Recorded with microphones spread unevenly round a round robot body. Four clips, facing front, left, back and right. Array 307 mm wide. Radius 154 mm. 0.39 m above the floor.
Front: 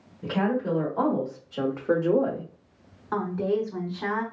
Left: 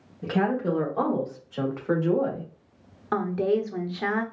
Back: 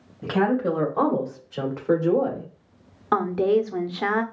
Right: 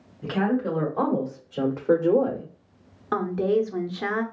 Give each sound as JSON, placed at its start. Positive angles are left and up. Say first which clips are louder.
{"t": 0.2, "sound": "a woman speaking", "louder": "right 1 dB, back 4 dB", "azimuth_deg": 155, "distance_m": 1.6}
{"t": 3.1, "sound": "a woman speaking", "louder": "right 1 dB, back 6 dB", "azimuth_deg": -165, "distance_m": 0.9}